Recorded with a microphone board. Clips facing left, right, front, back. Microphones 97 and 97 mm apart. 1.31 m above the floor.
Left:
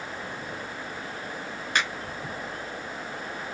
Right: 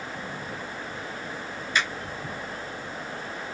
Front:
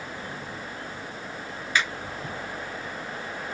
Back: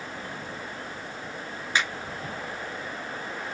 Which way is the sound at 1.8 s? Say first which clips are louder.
Even, front 1 dB; 110° left.